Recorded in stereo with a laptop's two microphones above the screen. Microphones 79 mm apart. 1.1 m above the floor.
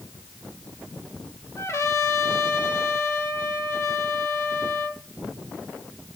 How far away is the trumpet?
About 1.7 m.